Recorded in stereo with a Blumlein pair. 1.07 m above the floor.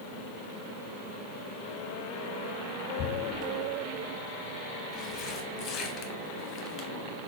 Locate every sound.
3.0 s tearing paper: 30° left, 0.7 m